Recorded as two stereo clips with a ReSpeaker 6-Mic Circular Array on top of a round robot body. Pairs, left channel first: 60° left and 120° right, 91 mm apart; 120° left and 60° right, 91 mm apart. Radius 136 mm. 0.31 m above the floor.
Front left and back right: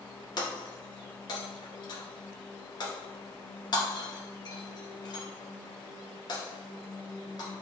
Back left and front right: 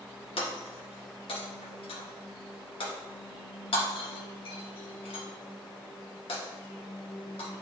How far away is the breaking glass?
About 1.9 m.